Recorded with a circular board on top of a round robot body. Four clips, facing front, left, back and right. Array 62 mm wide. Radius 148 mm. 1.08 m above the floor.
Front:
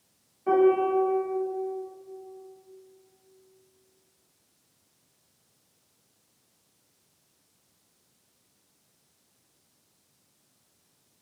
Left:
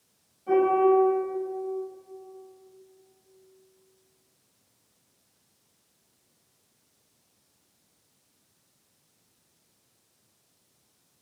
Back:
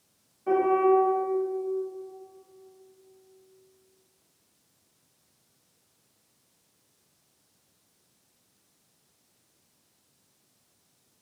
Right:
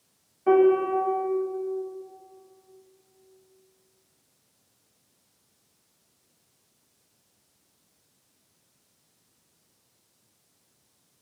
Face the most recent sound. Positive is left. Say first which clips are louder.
# right 1 dB, even
turn(degrees=-80)